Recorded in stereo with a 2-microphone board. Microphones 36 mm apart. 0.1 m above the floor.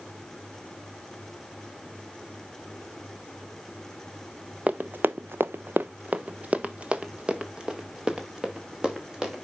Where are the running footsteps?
35° right (ahead or behind), 0.6 m; by 9.4 s 20° right (ahead or behind), 3 m.